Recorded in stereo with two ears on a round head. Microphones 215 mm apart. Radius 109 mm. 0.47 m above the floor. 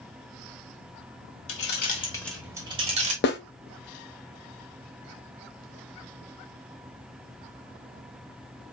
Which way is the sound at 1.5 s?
55° left (ahead or behind).